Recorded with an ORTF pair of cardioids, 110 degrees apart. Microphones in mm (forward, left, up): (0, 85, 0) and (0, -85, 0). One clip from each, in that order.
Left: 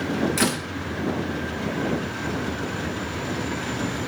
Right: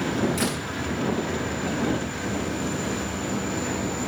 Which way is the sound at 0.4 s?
35° left.